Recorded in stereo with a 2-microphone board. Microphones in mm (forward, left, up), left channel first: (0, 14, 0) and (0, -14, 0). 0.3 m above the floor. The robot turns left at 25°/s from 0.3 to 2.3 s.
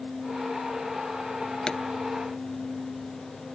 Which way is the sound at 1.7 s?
30° left (ahead or behind).